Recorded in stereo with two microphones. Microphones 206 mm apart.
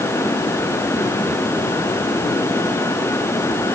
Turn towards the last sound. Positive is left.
No sound to turn to.